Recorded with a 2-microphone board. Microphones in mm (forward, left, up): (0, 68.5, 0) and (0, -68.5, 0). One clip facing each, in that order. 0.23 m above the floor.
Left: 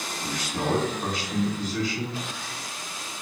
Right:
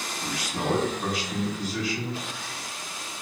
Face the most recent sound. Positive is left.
turn(degrees=-5)  # may be behind; listen again after turning